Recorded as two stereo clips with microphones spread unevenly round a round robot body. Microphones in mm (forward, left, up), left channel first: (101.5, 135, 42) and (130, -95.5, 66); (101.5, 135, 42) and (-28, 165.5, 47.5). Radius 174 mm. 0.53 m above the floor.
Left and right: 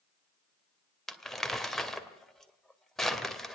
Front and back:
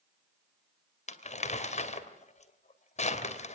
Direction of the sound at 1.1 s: 10° left.